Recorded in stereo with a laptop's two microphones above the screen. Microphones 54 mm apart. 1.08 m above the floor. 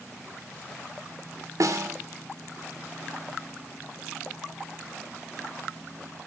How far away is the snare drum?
About 3 m.